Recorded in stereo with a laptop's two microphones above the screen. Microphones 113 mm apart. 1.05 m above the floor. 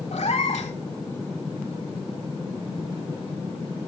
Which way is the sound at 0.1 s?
80° left.